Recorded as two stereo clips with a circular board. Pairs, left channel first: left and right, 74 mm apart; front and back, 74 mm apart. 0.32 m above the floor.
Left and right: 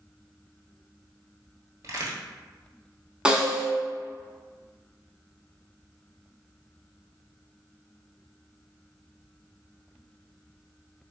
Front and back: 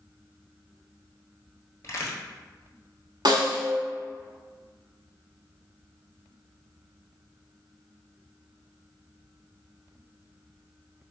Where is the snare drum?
165° right, 0.8 m.